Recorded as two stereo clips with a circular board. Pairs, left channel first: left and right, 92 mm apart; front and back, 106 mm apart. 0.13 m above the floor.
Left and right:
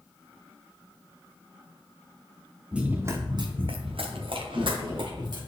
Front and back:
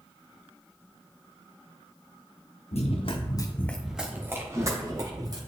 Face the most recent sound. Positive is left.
turn(degrees=-130)